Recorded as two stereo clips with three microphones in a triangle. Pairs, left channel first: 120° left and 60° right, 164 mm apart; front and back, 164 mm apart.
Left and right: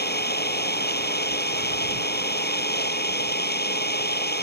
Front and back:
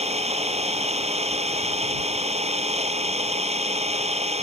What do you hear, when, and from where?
0.0 s an engine running: 130° left